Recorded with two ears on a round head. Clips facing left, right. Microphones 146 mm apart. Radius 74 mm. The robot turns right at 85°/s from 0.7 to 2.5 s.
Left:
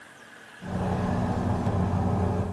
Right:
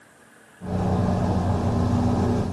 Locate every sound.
Only background noise.